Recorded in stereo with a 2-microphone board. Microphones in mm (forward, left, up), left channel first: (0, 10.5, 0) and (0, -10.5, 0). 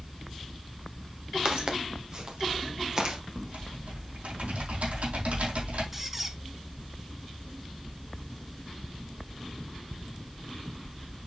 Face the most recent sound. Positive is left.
turn(degrees=-10)  # may be behind; listen again after turning